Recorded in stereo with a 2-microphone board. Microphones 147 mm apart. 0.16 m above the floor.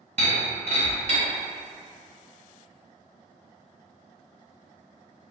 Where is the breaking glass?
55° right (ahead or behind), 1.6 m.